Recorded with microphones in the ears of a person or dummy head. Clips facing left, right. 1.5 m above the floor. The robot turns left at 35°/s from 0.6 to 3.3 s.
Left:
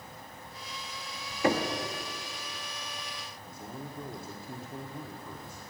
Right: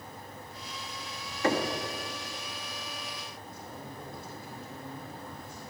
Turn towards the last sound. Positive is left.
turn(degrees=85)